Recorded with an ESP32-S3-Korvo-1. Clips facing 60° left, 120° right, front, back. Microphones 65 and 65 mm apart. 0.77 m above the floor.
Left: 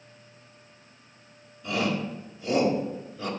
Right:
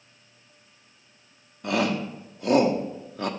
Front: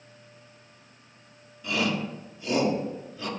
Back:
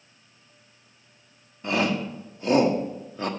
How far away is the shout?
About 1.3 m.